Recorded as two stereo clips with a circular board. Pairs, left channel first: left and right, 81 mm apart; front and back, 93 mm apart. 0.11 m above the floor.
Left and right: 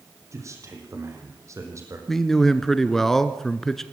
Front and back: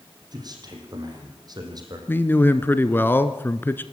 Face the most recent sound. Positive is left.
turn(degrees=10)